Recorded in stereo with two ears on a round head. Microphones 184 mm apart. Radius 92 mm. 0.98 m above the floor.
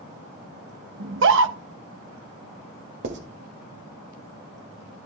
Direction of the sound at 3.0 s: 60° right (ahead or behind).